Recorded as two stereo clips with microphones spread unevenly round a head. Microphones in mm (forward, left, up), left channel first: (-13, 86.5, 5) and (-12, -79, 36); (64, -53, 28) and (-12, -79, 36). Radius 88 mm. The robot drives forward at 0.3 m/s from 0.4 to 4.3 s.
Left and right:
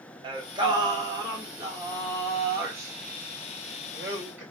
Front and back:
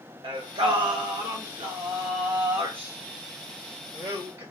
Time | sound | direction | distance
0.2 | singing | 150° right | 0.9 m